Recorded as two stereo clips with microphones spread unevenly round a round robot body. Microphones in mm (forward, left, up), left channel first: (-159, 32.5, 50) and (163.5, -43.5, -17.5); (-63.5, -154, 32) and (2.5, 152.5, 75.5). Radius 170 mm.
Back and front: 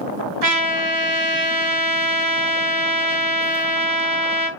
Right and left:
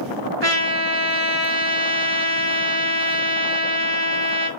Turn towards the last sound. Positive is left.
turn(degrees=20)